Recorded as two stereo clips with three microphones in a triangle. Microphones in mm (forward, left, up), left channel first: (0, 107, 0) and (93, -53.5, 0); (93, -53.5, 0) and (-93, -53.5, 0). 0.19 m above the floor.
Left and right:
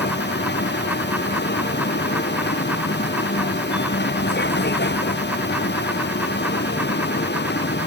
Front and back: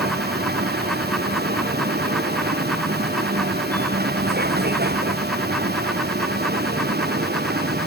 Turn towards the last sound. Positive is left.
turn(degrees=145)